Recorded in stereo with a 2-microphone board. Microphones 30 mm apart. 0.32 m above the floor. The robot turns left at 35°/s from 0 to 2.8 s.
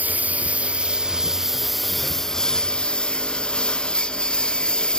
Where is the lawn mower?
120° right; by 5.0 s 145° left.